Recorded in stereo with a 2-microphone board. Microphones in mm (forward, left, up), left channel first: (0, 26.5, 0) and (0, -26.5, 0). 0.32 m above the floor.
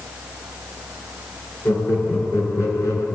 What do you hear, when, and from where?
1.6 s laughter: 65° left (ahead or behind), 4.5 m